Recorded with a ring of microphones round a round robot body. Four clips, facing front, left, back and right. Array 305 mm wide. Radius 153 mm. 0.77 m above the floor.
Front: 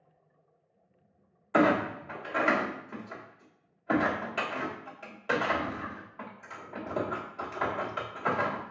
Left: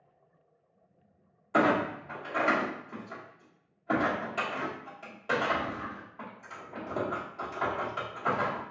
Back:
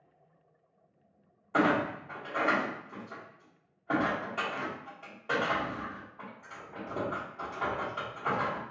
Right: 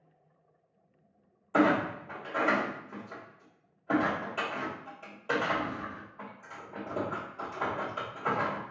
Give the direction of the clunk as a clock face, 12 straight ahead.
12 o'clock.